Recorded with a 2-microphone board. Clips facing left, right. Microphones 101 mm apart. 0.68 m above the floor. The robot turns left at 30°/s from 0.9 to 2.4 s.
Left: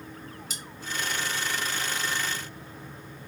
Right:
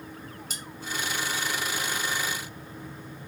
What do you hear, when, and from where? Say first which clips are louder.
0.5 s cutlery clinking: right 1 dB; 45° right (ahead or behind), 1.7 m